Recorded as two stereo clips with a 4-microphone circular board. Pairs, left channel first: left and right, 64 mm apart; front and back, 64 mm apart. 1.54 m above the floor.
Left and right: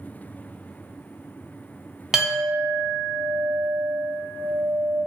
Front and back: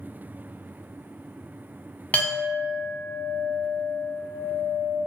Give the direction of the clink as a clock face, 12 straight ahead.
1 o'clock.